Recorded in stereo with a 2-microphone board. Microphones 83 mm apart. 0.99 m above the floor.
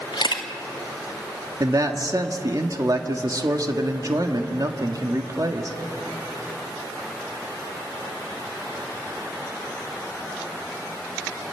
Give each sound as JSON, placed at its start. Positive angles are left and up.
{"t": 0.1, "sound": "a camera shutter", "side_deg": 65, "distance_m": 1.8}
{"t": 1.6, "sound": "a man speaking", "side_deg": -50, "distance_m": 1.7}